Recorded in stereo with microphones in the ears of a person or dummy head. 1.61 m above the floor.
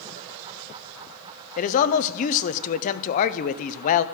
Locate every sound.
1.6 s a man speaking: 45° left (ahead or behind), 0.6 m